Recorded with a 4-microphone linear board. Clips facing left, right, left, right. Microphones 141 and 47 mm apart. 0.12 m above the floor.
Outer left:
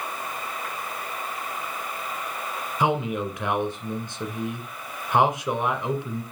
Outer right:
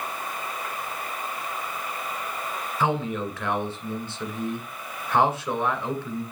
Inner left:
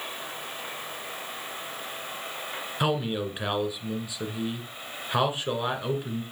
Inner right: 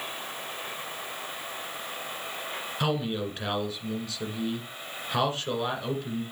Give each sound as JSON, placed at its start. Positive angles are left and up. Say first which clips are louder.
{"t": 2.8, "sound": "a man speaking", "louder": "outer left 2 dB, inner left 2 dB", "side_deg": 20, "distance_m": 1.7}